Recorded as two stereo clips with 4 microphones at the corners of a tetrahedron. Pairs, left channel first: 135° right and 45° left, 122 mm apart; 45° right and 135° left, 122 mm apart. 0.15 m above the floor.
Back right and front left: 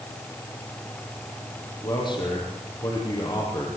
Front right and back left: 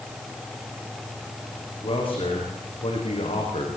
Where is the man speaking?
85° right, 8 m; by 3.7 s 80° right, 7 m.